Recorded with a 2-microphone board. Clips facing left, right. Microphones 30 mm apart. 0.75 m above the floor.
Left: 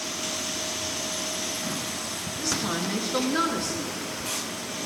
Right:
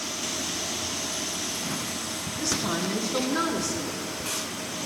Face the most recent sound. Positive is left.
turn(degrees=70)  # may be behind; listen again after turning